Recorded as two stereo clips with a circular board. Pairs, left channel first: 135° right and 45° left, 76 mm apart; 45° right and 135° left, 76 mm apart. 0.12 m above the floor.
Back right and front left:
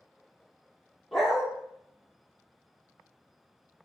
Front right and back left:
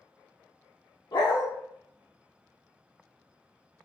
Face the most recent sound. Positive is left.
turn(degrees=-45)